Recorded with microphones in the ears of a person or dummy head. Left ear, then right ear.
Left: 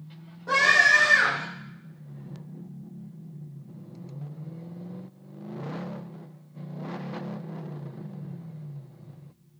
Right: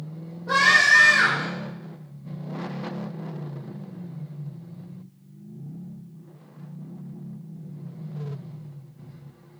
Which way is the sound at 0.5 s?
85° left.